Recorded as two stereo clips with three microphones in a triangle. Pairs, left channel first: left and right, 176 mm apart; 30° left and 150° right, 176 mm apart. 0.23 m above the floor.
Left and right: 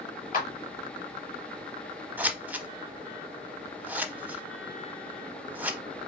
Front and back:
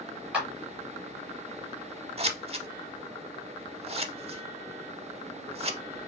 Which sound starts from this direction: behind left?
A clap, at 0.3 s.